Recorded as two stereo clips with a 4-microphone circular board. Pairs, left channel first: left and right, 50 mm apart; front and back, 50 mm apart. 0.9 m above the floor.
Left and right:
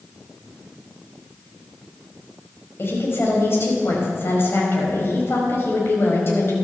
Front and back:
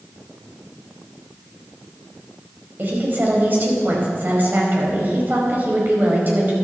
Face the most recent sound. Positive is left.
turn(degrees=130)